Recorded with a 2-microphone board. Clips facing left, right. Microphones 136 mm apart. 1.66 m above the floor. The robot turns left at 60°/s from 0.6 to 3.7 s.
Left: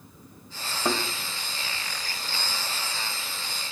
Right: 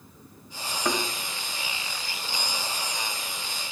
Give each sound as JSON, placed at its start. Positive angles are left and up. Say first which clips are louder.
{"t": 0.8, "sound": "a thud", "louder": "left 1 dB", "side_deg": 20, "distance_m": 2.5}